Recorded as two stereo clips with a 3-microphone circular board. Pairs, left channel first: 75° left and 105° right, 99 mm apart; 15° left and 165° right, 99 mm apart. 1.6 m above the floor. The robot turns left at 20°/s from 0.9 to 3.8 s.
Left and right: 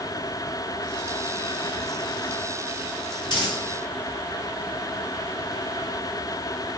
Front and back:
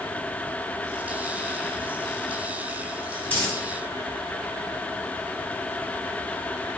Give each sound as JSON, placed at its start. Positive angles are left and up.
{"t": 3.3, "sound": "a dropped coin", "azimuth_deg": 75, "distance_m": 1.8}